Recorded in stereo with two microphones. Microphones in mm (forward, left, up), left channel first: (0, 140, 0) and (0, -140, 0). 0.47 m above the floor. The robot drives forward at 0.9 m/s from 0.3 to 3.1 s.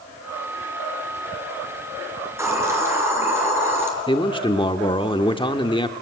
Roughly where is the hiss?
Centre.